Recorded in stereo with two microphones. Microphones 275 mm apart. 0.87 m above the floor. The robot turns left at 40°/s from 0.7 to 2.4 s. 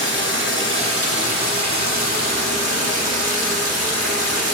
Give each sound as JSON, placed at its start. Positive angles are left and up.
{"t": 0.0, "sound": "running water", "azimuth_deg": -45, "distance_m": 1.0}